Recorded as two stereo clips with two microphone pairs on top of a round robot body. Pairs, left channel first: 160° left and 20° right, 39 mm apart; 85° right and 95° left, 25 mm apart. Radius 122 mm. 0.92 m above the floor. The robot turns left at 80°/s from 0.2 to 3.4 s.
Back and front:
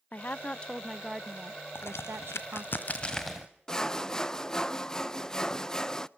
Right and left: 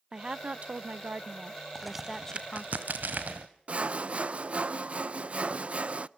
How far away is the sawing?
About 0.7 m.